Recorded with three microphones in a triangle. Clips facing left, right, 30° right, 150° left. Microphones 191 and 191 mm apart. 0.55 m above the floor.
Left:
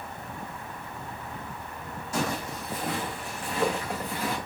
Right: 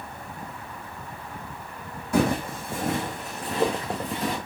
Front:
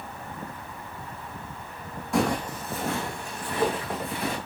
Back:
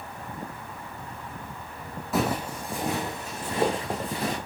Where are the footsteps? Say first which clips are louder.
Right 8 dB, front 2 dB; 120° right, 1.7 m; by 4.4 s 150° right, 3 m.